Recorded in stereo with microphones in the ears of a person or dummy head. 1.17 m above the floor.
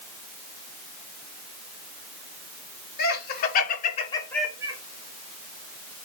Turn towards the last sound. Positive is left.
turn(degrees=-25)  # may be behind; listen again after turning